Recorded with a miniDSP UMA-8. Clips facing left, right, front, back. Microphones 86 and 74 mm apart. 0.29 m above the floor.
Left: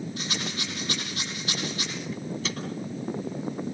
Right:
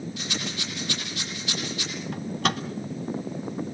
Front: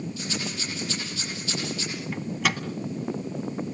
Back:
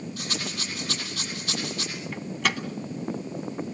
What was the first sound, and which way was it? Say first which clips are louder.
A rattle: even, front 1 dB; 145° left.